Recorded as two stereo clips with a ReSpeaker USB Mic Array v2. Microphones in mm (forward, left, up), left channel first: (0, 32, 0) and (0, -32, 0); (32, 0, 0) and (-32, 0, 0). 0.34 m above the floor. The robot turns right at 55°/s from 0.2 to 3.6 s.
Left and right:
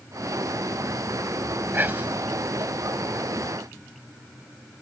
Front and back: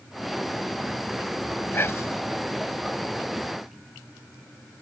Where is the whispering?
45° right; by 2.2 s 15° right.